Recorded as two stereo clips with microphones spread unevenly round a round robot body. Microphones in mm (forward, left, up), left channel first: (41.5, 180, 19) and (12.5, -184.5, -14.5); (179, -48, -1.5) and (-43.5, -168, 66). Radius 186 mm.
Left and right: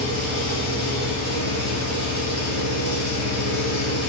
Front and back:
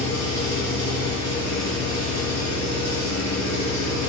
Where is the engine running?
105° right, 1.5 m.